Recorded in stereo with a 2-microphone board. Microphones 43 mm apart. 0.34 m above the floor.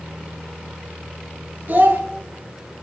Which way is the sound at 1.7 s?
45° right (ahead or behind).